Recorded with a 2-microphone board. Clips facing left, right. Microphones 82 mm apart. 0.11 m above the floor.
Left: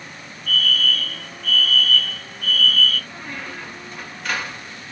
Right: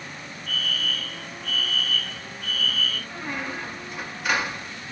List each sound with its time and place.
0.5 s a fire alarm: 10° right (ahead or behind), 2 m
3.1 s a squeak: 10° right (ahead or behind), 0.8 m